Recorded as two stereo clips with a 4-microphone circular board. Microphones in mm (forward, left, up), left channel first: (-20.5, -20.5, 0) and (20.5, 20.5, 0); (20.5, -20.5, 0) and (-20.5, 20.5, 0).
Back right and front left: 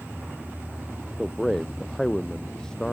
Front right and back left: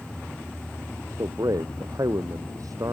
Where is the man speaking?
140° left; by 2.9 s 145° left.